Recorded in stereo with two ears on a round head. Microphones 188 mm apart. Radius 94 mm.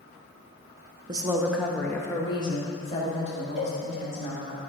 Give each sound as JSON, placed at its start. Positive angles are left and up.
{"t": 1.1, "sound": "a woman speaking", "side_deg": -25, "distance_m": 0.8}
{"t": 3.6, "sound": "a cowbell", "side_deg": 35, "distance_m": 2.0}